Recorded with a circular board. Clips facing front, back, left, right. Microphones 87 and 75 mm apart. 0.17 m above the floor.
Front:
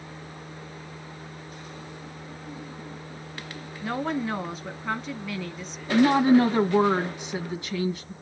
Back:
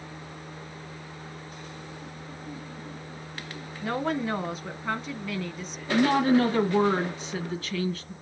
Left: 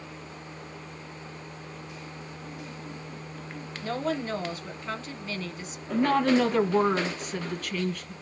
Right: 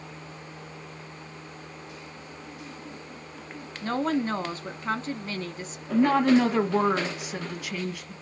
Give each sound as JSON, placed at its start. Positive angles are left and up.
{"t": 3.8, "sound": "a woman speaking", "azimuth_deg": -90, "distance_m": 1.5}
{"t": 5.9, "sound": "a woman speaking", "azimuth_deg": -25, "distance_m": 1.3}